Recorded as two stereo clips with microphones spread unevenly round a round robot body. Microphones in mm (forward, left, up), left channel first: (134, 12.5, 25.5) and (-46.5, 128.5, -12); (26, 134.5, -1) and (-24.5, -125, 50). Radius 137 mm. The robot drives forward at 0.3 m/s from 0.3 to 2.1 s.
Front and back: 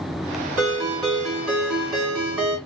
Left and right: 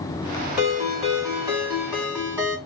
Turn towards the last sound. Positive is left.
turn(degrees=175)